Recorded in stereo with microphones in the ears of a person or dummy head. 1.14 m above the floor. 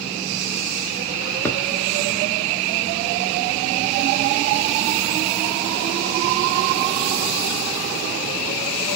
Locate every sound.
1.4 s a thud: 10° left (ahead or behind), 0.8 m